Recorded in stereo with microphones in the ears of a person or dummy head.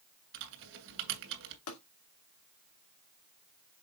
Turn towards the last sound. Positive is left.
turn(degrees=75)  # may be behind; listen again after turning